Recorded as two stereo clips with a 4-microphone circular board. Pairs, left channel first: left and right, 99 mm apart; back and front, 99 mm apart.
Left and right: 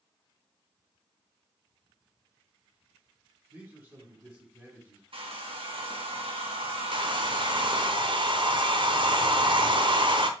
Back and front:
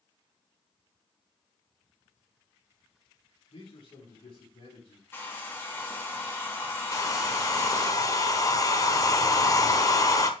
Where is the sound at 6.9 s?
125° right, 1.1 m.